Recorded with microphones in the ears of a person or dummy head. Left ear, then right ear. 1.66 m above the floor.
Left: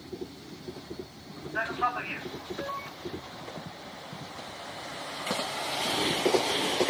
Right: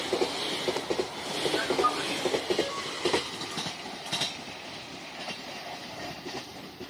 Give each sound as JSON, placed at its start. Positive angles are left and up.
{"t": 1.6, "sound": "a man speaking", "side_deg": 20, "distance_m": 9.5}